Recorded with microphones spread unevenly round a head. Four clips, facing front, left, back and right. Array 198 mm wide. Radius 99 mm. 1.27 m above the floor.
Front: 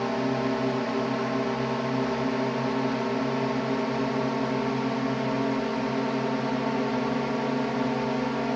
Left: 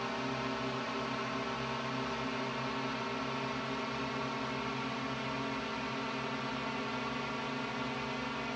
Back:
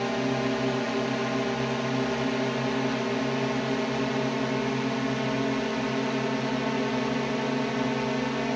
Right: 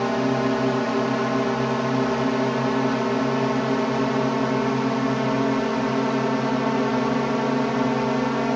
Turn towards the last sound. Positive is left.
turn(degrees=-85)